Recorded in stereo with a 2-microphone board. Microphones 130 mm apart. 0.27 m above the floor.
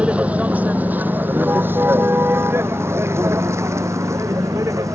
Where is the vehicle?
10° right (ahead or behind); by 5.0 s 25° right (ahead or behind).